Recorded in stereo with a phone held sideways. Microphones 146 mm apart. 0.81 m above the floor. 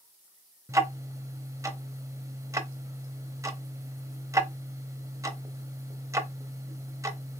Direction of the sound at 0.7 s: 20° right (ahead or behind).